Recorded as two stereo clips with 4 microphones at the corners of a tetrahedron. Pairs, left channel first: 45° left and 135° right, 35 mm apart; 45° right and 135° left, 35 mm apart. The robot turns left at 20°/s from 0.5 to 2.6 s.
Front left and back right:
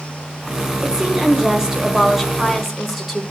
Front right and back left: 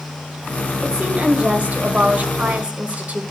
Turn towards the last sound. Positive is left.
turn(degrees=140)